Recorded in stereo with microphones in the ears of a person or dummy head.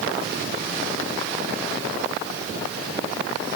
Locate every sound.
Only background noise.